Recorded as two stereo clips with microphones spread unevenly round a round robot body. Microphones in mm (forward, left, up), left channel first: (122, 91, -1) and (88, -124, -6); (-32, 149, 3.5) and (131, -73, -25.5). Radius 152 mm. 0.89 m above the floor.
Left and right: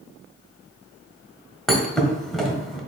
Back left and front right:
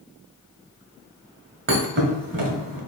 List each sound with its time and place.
1.7 s a thud: 5° right, 1.3 m